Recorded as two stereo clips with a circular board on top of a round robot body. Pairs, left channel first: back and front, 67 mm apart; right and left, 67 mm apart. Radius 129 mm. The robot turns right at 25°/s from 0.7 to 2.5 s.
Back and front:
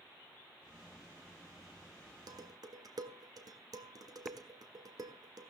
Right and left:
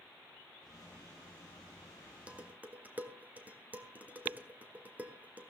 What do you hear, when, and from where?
2.3 s dishes clattering: 20° left, 1.8 m; by 5.5 s 25° left, 1.8 m